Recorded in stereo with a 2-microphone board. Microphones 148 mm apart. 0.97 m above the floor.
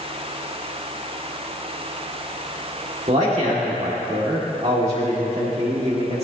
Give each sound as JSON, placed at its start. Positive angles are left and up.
{"t": 3.1, "sound": "a man speaking", "side_deg": -50, "distance_m": 1.8}